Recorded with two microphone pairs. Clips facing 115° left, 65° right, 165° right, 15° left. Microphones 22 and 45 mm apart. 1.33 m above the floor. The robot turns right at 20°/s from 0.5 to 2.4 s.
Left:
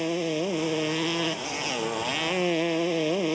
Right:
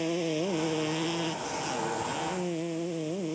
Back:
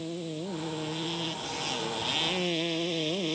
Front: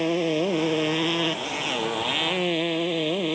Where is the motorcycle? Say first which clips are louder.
Left 2 dB, front 13 dB; 40° left; by 3.4 s 80° left.